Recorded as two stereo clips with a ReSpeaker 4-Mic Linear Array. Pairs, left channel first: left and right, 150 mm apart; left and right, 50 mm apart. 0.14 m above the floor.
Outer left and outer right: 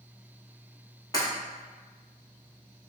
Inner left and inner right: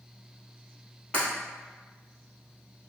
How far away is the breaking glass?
About 1.8 m.